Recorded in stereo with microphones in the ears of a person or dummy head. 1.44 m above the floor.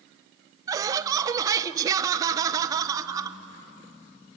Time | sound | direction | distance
0.7 | laughter | 25° right (ahead or behind) | 1.0 m